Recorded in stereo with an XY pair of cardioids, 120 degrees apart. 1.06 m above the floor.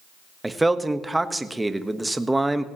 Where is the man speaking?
10° right, 1.1 m.